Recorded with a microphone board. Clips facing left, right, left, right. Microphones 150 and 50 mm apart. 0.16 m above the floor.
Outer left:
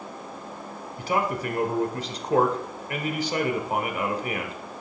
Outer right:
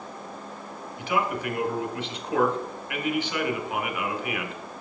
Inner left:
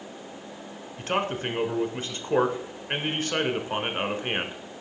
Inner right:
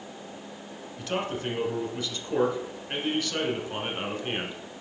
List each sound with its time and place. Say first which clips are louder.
1.0 s a man speaking: outer left 1 dB, inner left 3 dB; 40° left (ahead or behind), 1.3 m